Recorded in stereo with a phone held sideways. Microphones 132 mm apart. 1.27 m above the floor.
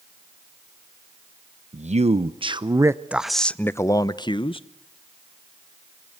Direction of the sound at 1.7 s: 60° right (ahead or behind).